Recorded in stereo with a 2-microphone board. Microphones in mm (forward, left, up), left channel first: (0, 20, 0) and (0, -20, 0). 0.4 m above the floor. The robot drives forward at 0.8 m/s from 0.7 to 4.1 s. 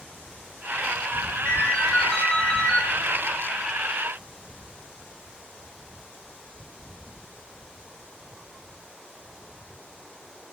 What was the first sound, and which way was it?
A ringtone, 30° left (ahead or behind).